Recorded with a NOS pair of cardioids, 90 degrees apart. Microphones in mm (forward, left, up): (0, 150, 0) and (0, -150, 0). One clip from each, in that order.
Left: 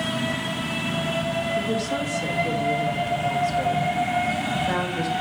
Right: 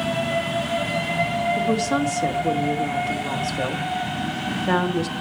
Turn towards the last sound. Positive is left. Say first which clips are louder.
# right 3 dB
turn(degrees=-35)